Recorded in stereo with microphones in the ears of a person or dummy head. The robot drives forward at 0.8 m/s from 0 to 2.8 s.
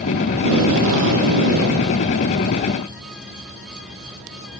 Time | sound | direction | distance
0.3 | tape being pulled | 70° right (ahead or behind) | 5 m